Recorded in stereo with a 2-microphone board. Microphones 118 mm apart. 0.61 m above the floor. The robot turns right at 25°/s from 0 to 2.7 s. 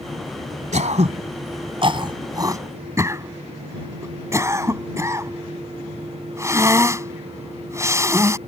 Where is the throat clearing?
70° right (ahead or behind); by 8.4 s 25° right (ahead or behind).